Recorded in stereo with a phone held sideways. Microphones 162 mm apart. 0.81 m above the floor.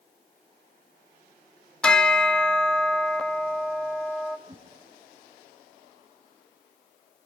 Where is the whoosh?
35° right (ahead or behind), 3 m.